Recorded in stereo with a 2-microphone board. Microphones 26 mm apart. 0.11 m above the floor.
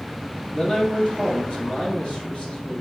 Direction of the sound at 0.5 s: 30° left (ahead or behind).